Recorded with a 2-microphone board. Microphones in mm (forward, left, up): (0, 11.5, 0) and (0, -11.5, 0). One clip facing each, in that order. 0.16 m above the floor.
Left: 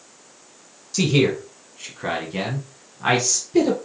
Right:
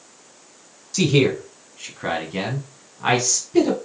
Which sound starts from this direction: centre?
A man speaking, at 0.9 s.